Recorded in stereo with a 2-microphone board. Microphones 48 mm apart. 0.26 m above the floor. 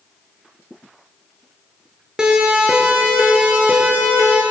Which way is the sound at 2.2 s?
15° right (ahead or behind).